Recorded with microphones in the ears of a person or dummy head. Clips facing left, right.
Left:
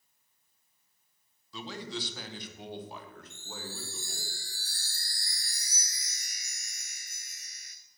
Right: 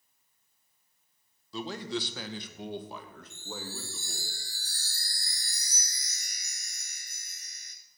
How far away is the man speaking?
About 1.1 m.